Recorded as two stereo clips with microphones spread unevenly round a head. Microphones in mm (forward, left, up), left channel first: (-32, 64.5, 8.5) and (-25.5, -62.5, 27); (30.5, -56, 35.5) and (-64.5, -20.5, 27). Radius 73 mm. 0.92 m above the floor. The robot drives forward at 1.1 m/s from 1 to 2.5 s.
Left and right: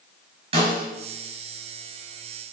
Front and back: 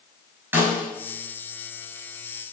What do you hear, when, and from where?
0.5 s a snare drum: 130° right, 4.5 m